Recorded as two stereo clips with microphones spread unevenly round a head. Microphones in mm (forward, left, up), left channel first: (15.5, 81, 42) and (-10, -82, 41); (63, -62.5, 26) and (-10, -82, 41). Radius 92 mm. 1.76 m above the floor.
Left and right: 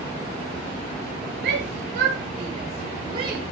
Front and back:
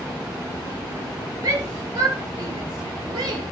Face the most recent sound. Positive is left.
turn(degrees=-165)